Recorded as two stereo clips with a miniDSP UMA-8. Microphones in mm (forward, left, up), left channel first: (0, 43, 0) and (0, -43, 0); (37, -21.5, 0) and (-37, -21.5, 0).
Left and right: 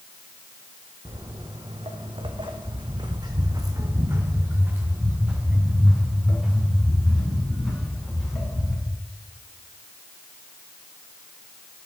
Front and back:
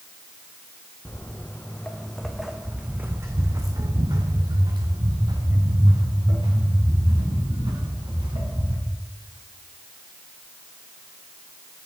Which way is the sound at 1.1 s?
60° right.